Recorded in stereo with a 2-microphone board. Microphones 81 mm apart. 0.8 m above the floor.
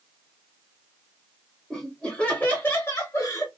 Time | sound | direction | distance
1.7 | laughter | 5° left (ahead or behind) | 1.2 m